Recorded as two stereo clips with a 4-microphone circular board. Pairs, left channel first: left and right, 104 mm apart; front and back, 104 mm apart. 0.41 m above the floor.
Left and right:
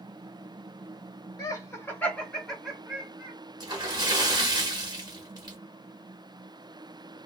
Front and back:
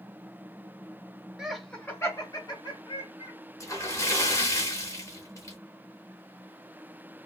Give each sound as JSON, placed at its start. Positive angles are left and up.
{"t": 1.4, "sound": "laughter", "azimuth_deg": 100, "distance_m": 1.0}
{"t": 3.6, "sound": "a splash", "azimuth_deg": -50, "distance_m": 1.0}